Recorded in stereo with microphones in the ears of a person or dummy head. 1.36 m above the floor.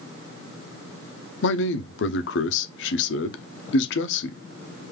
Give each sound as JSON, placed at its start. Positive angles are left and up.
{"t": 1.4, "sound": "a man speaking", "side_deg": 60, "distance_m": 0.7}